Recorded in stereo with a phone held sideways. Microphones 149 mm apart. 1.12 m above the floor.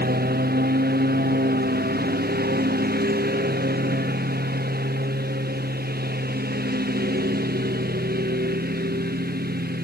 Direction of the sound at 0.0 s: 80° right.